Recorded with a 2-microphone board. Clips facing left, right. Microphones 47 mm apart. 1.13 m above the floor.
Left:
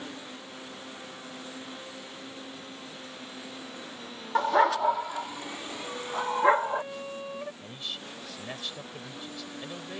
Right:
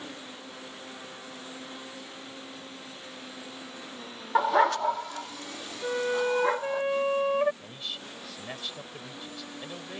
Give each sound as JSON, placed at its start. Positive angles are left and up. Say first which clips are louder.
{"t": 4.3, "sound": "a dog barking", "louder": "even", "side_deg": -10}
{"t": 5.8, "sound": "a flute", "louder": "right 6 dB", "side_deg": -65}
{"t": 7.6, "sound": "a man speaking", "louder": "even", "side_deg": -5}